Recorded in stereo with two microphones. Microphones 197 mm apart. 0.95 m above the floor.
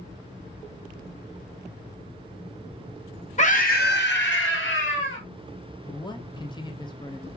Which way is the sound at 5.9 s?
20° left (ahead or behind).